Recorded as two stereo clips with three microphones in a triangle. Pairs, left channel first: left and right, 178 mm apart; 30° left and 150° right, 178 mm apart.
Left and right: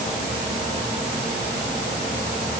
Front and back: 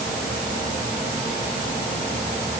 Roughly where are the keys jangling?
I don't hear keys jangling.